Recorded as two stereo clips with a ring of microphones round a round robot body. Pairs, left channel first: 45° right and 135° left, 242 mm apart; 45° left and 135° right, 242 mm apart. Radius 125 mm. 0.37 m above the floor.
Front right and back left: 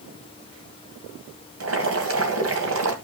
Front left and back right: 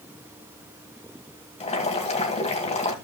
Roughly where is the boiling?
Left.